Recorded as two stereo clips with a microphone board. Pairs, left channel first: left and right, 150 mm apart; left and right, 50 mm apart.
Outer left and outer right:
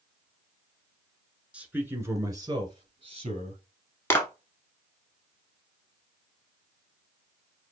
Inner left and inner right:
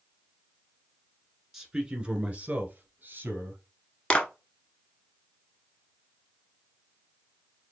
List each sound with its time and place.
1.5 s a man speaking: 5° right (ahead or behind), 1.3 m; by 3.6 s 45° right (ahead or behind), 1.7 m
4.1 s a clap: 15° left (ahead or behind), 1.0 m